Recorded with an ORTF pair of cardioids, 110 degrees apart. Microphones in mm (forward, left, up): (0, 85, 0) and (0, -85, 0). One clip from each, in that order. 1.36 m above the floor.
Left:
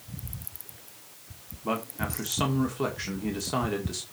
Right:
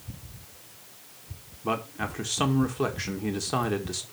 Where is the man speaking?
15° right, 1.7 m.